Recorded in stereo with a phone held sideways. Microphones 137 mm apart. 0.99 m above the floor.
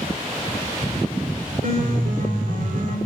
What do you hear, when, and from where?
1.6 s a piano: 70° right (ahead or behind), 3 m